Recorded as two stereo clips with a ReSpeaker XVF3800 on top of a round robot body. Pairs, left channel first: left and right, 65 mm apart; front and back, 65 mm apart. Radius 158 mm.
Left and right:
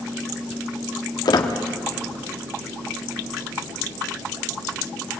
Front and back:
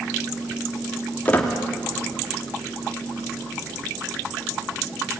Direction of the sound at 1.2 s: 70° left.